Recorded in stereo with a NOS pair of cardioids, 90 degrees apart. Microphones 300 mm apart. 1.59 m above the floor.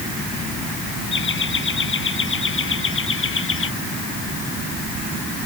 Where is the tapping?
No tapping in this recording.